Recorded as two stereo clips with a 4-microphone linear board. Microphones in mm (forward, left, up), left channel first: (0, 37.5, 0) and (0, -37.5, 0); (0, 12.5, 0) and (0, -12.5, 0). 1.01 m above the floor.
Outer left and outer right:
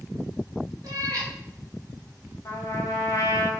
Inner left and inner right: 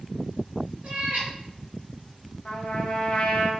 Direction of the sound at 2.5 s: 45° left (ahead or behind).